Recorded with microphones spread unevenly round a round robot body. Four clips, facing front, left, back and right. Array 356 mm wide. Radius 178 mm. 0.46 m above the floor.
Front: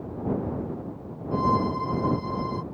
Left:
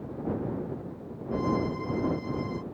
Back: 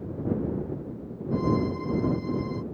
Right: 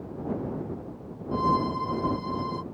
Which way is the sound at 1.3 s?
35° right.